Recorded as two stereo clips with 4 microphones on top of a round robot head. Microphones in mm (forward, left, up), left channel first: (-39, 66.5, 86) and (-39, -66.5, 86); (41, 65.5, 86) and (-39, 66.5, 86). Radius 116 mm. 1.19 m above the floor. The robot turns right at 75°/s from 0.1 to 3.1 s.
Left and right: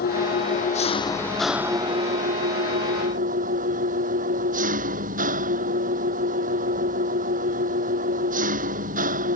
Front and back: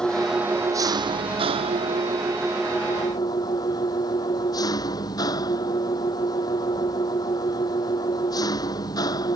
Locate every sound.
0.0 s an engine running: 80° left; by 9.4 s 55° right